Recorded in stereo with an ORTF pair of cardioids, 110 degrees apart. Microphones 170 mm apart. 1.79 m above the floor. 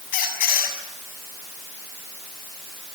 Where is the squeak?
60° left, 7 m.